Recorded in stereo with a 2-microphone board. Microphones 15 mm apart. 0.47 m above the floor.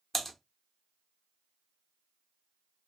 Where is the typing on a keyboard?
5° left (ahead or behind), 0.7 m.